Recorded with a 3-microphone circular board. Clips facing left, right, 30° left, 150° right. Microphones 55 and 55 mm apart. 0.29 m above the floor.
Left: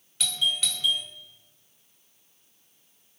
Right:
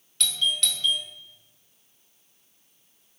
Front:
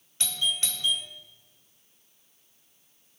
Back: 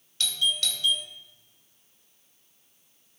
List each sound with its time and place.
0.2 s a doorbell: 15° left, 1.5 m